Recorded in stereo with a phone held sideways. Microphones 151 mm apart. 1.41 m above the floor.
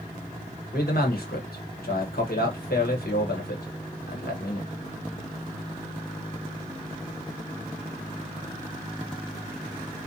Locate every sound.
0.7 s a man speaking: 80° left, 1.0 m